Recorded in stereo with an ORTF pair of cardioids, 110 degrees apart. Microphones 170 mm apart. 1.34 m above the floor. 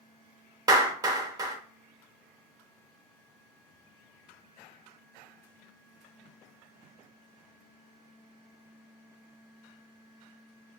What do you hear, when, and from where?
0.7 s a clap: 20° right, 0.8 m